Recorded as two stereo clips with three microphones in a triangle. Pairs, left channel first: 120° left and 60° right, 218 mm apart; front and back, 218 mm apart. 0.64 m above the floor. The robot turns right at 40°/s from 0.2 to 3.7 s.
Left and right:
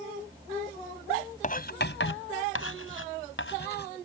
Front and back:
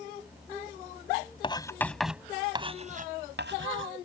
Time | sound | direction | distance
1.4 | writing | 65° left | ?